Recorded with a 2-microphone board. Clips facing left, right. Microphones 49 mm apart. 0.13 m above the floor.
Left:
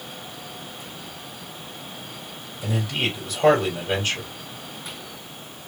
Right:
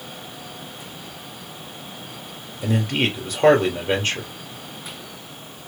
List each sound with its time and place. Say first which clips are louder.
2.6 s a man speaking: right 4 dB; 45° right (ahead or behind), 3 m